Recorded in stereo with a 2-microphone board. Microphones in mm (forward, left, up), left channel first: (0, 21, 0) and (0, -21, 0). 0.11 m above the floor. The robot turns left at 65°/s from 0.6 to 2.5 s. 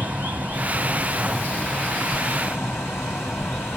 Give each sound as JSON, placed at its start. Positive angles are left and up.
{"t": 0.0, "sound": "running water", "azimuth_deg": -145, "distance_m": 2.5}